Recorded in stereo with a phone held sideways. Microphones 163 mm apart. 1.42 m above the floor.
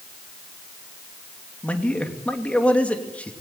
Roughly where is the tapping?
I don't hear tapping.